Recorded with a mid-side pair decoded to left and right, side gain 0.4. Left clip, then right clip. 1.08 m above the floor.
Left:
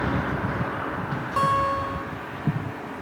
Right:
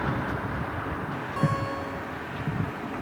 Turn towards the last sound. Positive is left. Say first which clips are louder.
# left 9 dB
turn(degrees=65)